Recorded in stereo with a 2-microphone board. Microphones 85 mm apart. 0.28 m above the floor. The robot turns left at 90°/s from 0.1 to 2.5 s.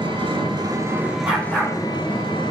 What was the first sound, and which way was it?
An engine running, 75° right.